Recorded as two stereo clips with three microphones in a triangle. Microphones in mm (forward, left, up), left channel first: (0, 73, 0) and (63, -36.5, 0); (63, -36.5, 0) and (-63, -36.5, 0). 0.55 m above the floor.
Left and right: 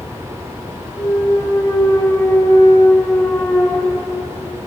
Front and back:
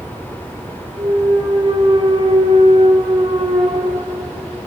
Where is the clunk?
175° left, 1.5 m.